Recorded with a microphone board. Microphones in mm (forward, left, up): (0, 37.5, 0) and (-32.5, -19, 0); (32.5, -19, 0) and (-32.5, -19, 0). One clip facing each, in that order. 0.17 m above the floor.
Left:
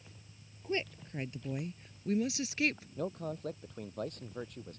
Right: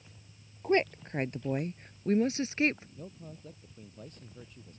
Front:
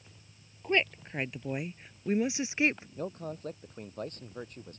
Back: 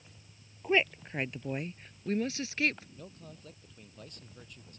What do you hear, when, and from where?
0.6 s a woman speaking: 95° right; by 2.9 s 65° right
3.0 s a man speaking: 45° left